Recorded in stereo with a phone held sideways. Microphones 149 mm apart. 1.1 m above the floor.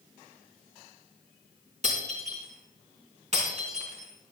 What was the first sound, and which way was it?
Breaking glass, 50° right (ahead or behind).